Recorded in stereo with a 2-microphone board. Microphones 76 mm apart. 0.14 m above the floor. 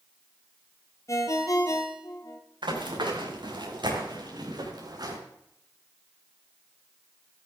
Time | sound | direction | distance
1.1 | a ringtone | 45° left (ahead or behind) | 2 m
2.6 | running footsteps | 90° right | 5 m